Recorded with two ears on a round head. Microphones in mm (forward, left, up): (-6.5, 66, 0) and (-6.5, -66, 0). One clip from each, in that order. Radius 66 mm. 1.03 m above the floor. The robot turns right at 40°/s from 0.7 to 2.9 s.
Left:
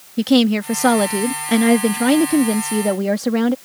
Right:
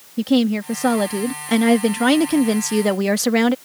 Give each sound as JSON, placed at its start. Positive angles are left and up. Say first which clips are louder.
{"t": 0.2, "sound": "a woman speaking", "louder": "left 3 dB", "azimuth_deg": 155}